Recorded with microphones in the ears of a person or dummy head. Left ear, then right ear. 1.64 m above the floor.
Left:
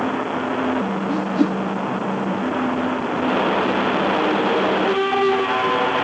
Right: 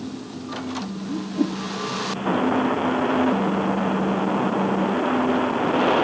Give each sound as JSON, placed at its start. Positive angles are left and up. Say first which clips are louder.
{"t": 1.1, "sound": "a whoosh", "louder": "left 3 dB", "side_deg": 55, "distance_m": 1.3}